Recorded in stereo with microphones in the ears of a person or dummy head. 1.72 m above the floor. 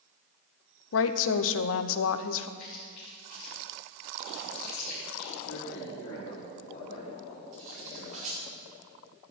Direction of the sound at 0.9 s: 70° left (ahead or behind).